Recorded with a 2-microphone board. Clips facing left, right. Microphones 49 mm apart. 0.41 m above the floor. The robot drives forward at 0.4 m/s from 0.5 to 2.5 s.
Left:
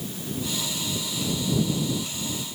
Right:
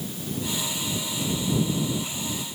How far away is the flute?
No flute in this recording.